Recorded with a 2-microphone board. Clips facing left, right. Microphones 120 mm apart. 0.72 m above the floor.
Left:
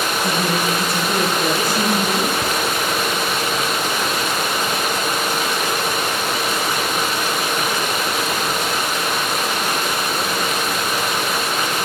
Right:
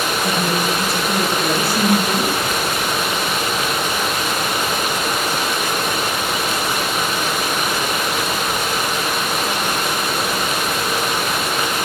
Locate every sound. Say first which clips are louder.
0.2 s a woman speaking: even; 20° left (ahead or behind), 6 m; by 2.3 s 10° left (ahead or behind), 6.5 m
2.4 s ticking: even; 80° left, 1.0 m